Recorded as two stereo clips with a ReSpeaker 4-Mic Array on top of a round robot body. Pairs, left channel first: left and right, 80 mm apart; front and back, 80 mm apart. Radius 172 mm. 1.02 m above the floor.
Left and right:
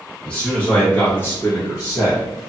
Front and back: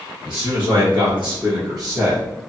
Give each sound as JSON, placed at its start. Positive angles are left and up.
{"t": 0.2, "sound": "a man speaking", "azimuth_deg": 165, "distance_m": 1.9}